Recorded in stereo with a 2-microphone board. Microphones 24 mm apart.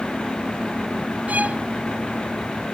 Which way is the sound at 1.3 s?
85° right.